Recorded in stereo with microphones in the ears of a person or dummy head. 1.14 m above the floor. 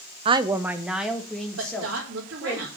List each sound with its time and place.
0.2 s a woman speaking: 30° right (ahead or behind), 0.8 m; by 2.6 s 10° left (ahead or behind), 4 m
1.6 s a woman speaking: 70° right (ahead or behind), 2.5 m